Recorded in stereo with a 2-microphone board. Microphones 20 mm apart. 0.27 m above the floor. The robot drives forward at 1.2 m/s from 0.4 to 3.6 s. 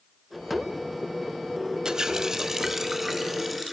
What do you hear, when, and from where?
1.9 s a running tap: 35° right (ahead or behind), 0.7 m; by 3.8 s 10° right (ahead or behind), 2 m